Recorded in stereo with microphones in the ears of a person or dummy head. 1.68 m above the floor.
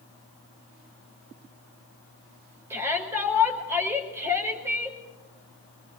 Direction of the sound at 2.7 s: 15° right (ahead or behind).